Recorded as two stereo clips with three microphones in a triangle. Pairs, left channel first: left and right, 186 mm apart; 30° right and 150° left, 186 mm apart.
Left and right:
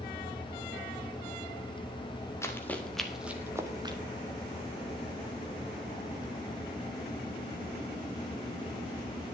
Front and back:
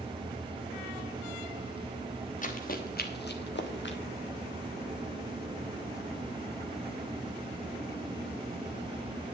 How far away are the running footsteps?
About 2 m.